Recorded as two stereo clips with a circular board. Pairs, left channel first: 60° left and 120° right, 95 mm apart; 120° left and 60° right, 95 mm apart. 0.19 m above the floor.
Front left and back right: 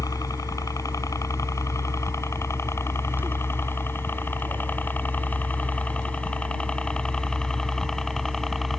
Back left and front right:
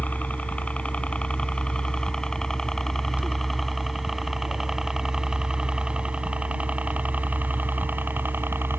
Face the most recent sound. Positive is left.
turn(degrees=-25)